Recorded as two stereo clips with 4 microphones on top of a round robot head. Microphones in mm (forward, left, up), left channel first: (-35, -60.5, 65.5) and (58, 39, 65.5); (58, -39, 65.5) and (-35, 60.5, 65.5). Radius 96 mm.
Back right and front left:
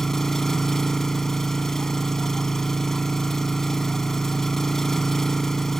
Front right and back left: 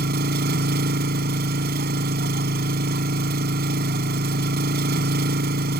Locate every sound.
0.0 s an engine running: 140° left